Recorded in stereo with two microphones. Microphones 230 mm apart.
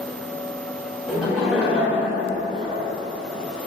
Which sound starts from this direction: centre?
Laughter, at 1.1 s.